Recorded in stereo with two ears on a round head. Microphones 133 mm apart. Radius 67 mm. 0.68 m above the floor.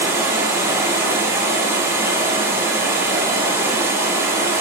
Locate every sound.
0.0 s running water: 15° right (ahead or behind), 0.7 m